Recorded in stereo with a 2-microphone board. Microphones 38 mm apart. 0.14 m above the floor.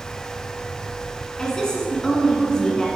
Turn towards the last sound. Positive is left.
turn(degrees=20)  # may be behind; listen again after turning